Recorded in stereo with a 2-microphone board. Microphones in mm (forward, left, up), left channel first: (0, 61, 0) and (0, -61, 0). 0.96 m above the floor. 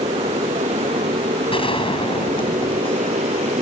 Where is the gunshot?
45° left (ahead or behind).